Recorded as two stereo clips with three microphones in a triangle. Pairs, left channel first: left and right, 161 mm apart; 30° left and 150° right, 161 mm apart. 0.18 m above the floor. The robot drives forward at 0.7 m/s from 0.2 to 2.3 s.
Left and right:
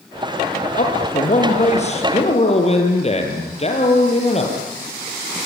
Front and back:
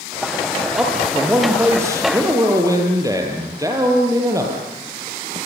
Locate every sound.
0.8 s a man speaking: 130° left, 4.5 m; by 4.6 s 140° left, 5 m